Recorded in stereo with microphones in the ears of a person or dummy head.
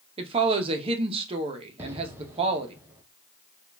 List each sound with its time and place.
0.2 s a woman speaking: 30° right (ahead or behind), 0.7 m
1.8 s an explosion: 15° right (ahead or behind), 0.6 m